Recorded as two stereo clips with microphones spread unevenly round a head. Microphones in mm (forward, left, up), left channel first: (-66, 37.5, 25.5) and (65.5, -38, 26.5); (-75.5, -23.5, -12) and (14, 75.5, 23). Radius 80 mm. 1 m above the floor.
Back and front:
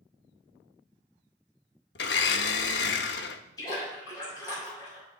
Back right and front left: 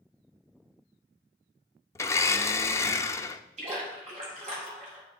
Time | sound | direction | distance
1.9 | a blender | 150° left | 0.9 m
3.6 | a splash | 85° left | 6 m